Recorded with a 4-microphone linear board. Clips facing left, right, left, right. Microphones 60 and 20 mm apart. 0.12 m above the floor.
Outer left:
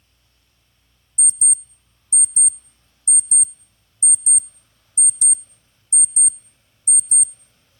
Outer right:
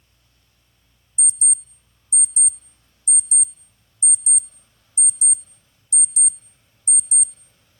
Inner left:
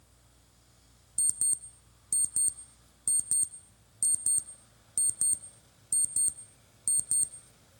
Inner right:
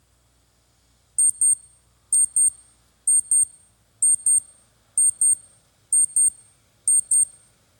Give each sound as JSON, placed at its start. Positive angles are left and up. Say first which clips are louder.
{"t": 1.2, "sound": "an alarm clock", "louder": "outer left 1 dB, inner right 9 dB", "side_deg": 40, "distance_m": 0.6}